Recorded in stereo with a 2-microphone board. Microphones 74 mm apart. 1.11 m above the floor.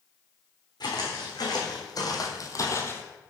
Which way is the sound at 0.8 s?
70° left (ahead or behind).